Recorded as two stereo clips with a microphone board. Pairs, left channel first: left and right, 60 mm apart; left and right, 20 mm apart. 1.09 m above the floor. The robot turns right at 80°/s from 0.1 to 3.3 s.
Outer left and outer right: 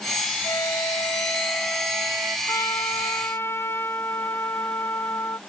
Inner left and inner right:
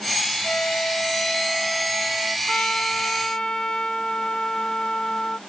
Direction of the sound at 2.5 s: 70° left.